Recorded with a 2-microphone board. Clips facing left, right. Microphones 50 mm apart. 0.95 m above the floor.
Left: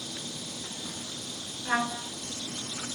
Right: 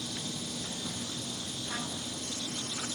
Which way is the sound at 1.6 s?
80° left.